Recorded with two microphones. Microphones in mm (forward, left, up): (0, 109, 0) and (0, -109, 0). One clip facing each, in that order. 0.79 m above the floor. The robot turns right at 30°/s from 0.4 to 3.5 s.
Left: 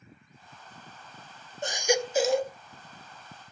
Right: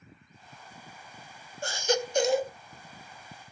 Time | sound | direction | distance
1.6 | a baby crying | 20° left (ahead or behind) | 0.6 m